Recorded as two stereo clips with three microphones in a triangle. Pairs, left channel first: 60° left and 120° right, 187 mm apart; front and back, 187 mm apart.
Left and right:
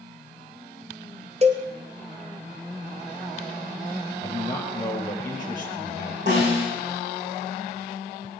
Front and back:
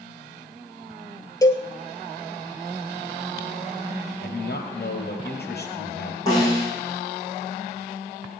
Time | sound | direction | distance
1.4 | a cowbell | 70° right | 1.2 m
4.2 | a man speaking | 10° right | 3.5 m
6.3 | a snare drum | 70° right | 10 m